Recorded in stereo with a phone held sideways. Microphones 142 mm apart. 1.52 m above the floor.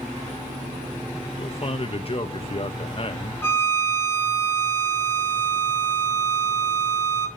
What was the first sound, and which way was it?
A man speaking, 40° left (ahead or behind).